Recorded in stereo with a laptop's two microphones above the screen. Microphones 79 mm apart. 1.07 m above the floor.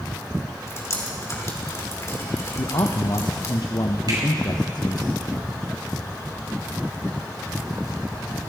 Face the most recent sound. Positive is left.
turn(degrees=-60)  # may be behind; listen again after turning